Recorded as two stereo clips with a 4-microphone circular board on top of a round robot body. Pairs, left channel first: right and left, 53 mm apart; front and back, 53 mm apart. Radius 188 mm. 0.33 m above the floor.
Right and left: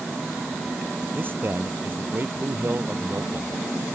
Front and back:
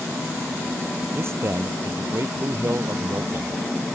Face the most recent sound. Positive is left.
turn(degrees=140)